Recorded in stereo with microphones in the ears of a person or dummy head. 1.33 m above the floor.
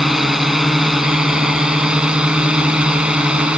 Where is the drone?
Centre (ahead or behind); by 3.6 s 5° right (ahead or behind).